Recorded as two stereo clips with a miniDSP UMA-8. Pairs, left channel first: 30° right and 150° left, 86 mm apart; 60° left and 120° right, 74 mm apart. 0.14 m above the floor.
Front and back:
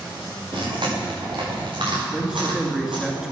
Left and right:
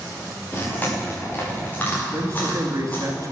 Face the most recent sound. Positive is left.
turn(degrees=-130)